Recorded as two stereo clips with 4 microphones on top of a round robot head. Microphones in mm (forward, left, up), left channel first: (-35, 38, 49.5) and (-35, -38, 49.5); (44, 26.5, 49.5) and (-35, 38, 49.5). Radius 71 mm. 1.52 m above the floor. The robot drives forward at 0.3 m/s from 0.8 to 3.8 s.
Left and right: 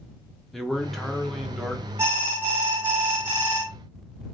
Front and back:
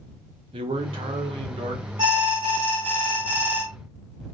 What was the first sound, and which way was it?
A man speaking, 175° left.